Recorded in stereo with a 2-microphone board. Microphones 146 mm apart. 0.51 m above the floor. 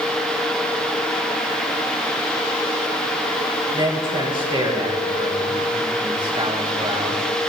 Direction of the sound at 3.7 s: 35° right (ahead or behind).